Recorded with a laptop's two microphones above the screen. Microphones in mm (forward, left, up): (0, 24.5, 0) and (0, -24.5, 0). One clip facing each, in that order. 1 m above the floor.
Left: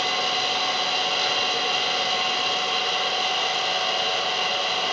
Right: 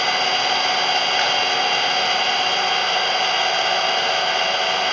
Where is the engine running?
50° right (ahead or behind), 1.4 m.